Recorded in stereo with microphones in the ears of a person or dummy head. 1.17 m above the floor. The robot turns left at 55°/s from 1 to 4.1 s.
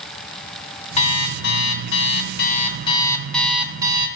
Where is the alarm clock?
135° left, 1.4 m; by 4.1 s 35° right, 1.4 m.